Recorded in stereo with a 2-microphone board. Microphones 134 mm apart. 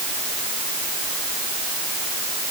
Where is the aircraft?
No aircraft in this recording.